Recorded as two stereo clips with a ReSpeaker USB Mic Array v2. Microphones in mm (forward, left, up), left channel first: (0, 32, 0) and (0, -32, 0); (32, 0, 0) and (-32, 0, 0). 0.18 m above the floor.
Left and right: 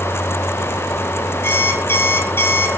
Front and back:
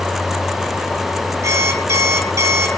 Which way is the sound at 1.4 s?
140° left.